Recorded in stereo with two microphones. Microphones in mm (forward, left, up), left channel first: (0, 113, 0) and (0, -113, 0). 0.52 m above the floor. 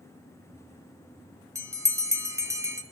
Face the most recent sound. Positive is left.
turn(degrees=-15)  # may be behind; listen again after turning